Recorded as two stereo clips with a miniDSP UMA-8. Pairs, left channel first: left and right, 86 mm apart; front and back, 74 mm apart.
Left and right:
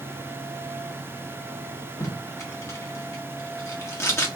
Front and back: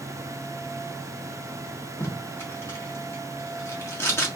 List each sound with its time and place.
2.0 s tape being pulled: 45° left, 1.4 m